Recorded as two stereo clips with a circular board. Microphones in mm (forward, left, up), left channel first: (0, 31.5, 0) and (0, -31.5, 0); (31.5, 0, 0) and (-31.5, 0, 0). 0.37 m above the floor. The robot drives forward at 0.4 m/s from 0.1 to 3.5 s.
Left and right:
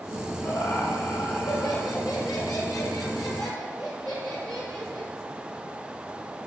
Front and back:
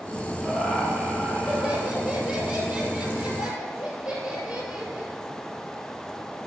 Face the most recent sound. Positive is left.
turn(degrees=110)